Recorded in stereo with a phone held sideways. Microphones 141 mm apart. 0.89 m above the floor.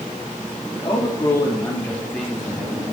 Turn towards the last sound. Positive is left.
turn(degrees=-10)  # may be behind; listen again after turning